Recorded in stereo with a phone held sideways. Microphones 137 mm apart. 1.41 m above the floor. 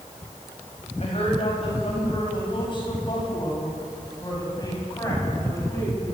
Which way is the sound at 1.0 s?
45° left (ahead or behind).